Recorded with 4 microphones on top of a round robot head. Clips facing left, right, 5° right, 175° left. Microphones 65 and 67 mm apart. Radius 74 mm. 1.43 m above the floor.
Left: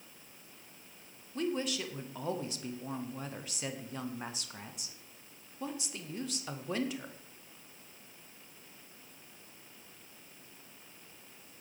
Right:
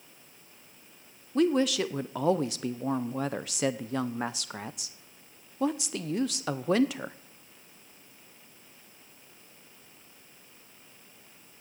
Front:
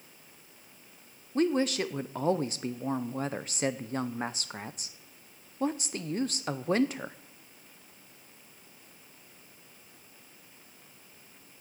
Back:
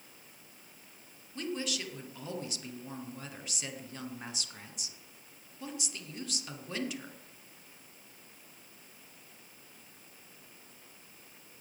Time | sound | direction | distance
1.4 | a woman speaking | 60° right | 0.6 m